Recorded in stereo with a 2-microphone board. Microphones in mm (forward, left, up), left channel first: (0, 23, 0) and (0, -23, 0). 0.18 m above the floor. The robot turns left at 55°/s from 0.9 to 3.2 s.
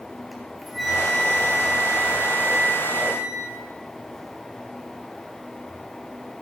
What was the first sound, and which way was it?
A flute, 5° right.